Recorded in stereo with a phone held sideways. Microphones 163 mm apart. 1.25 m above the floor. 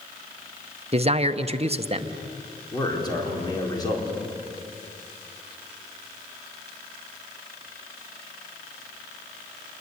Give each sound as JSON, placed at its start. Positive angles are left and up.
{"t": 0.9, "sound": "a man speaking", "side_deg": -40, "distance_m": 0.9}
{"t": 2.7, "sound": "a man speaking", "side_deg": 25, "distance_m": 4.0}